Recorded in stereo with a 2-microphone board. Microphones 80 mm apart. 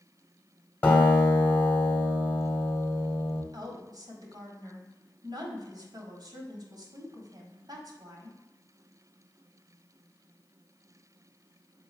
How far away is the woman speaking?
About 1.6 m.